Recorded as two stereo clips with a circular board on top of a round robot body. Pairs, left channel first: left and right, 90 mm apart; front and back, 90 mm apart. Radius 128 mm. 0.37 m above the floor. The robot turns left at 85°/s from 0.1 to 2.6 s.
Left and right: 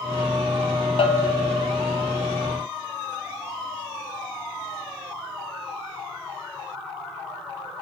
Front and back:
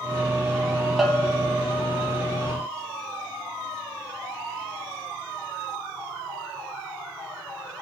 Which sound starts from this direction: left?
A bell, at 1.0 s.